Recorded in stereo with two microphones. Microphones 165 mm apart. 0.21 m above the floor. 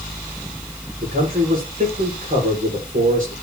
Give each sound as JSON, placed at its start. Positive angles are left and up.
{"t": 1.0, "sound": "a man speaking", "side_deg": -55, "distance_m": 4.0}